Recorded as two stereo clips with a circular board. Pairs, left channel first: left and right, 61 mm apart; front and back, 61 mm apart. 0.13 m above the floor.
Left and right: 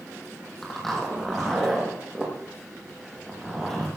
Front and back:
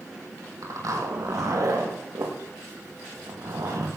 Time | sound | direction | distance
0.6 | a zipper | 175° left | 5.5 m